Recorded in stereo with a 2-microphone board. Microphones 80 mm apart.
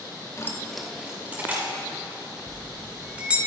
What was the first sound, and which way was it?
Keys jangling, 40° left (ahead or behind).